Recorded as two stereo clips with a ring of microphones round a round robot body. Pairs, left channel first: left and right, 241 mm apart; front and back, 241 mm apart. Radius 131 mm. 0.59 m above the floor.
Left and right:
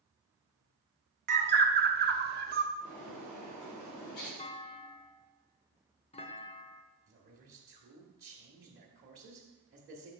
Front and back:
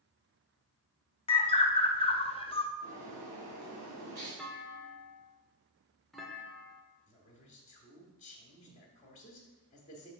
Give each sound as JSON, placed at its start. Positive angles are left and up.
{"t": 1.3, "sound": "a bird", "azimuth_deg": -60, "distance_m": 0.6}
{"t": 2.8, "sound": "a bird", "azimuth_deg": 140, "distance_m": 3.0}
{"t": 4.4, "sound": "a clunk", "azimuth_deg": 90, "distance_m": 0.7}
{"t": 7.1, "sound": "a man speaking", "azimuth_deg": -55, "distance_m": 1.2}